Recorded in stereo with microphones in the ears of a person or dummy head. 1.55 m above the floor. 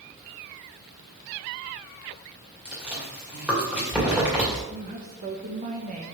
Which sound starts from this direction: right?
A woman speaking, at 4.7 s.